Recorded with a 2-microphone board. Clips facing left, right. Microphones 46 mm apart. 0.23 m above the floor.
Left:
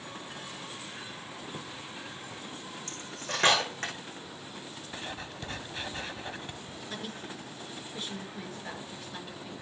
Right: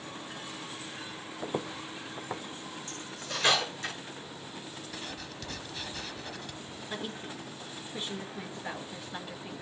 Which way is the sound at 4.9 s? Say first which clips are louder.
Left 4 dB; 25° left (ahead or behind).